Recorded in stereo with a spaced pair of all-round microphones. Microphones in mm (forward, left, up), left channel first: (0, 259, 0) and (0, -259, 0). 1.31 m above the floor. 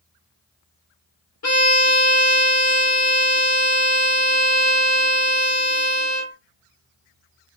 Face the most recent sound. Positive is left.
turn(degrees=35)  # may be behind; listen again after turning